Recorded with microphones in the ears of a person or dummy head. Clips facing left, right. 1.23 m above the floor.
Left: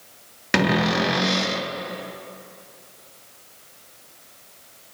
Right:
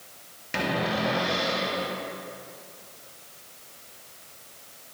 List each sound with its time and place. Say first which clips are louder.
0.5 s a cupboard door: left 7 dB; 70° left (ahead or behind), 0.6 m